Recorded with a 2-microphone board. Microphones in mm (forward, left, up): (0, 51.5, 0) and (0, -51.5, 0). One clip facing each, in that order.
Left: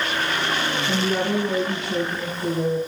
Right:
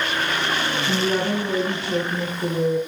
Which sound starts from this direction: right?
A woman speaking, at 0.8 s.